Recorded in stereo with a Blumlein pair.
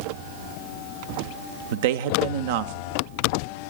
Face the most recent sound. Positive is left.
turn(degrees=-55)